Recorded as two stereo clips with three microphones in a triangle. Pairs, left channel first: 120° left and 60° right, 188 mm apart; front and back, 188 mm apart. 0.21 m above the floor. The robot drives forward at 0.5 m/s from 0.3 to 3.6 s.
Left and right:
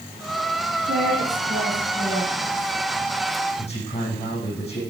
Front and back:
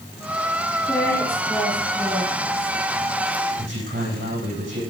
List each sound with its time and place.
0.8 s a woman speaking: 75° right, 1.9 m; by 2.8 s 115° right, 2.0 m
3.6 s a man speaking: 175° left, 8 m